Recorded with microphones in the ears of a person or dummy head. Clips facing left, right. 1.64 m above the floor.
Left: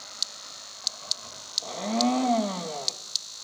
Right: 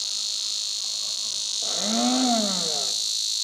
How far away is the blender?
About 1.3 m.